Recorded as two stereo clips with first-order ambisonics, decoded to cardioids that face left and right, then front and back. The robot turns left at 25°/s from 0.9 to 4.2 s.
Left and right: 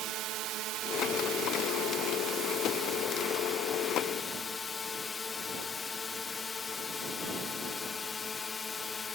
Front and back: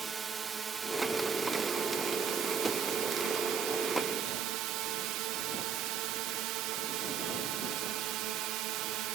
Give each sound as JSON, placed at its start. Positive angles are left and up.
{"t": 0.0, "sound": "a drone", "azimuth_deg": -115}